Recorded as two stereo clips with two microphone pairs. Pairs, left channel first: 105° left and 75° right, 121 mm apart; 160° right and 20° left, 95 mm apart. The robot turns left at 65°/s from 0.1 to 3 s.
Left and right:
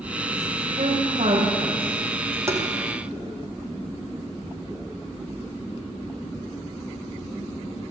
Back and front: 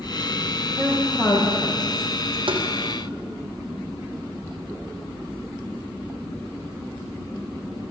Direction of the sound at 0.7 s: 45° right.